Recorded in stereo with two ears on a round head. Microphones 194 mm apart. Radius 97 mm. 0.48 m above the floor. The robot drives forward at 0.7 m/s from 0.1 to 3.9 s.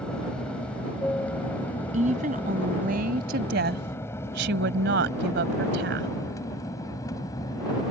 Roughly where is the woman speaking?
Right.